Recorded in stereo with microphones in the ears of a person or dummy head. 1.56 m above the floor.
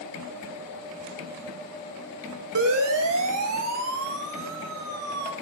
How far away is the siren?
About 4 m.